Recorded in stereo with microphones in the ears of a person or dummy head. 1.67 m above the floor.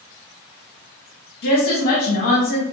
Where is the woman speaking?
60° left (ahead or behind), 1.1 m.